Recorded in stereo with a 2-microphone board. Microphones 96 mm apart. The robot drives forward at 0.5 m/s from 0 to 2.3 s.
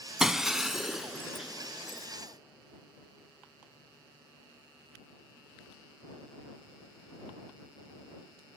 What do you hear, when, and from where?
0.2 s breaking glass: 5° right (ahead or behind), 0.7 m